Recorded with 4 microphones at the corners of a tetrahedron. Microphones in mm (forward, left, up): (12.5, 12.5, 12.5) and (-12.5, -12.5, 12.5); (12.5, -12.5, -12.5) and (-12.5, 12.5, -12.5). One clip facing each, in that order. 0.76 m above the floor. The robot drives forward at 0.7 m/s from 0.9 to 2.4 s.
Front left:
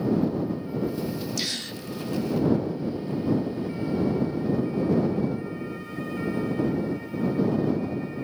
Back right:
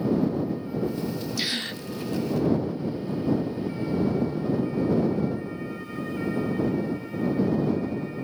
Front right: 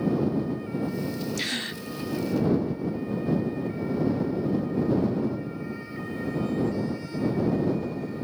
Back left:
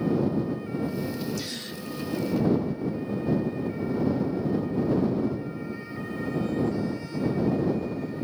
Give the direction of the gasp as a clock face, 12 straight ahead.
2 o'clock.